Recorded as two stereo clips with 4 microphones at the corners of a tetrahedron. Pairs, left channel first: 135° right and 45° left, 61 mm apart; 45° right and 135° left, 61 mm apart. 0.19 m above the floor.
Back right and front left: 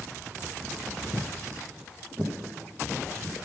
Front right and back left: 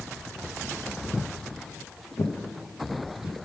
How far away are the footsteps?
About 0.5 m.